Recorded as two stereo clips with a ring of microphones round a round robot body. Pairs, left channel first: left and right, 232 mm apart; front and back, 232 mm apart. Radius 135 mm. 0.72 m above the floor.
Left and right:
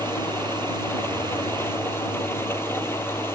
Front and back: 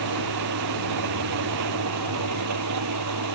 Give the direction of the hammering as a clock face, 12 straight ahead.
No hammering in this recording.